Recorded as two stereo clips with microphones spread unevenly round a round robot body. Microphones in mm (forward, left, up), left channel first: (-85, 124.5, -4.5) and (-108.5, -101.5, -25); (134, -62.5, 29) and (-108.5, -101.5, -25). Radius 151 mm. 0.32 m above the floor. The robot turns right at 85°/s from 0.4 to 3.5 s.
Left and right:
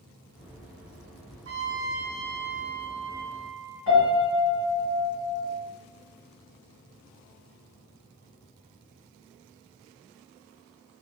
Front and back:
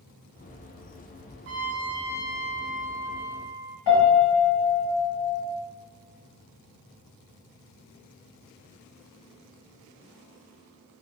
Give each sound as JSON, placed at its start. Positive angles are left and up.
{"t": 1.4, "sound": "a trumpet", "azimuth_deg": -130, "distance_m": 1.1}
{"t": 3.9, "sound": "a piano", "azimuth_deg": 25, "distance_m": 1.4}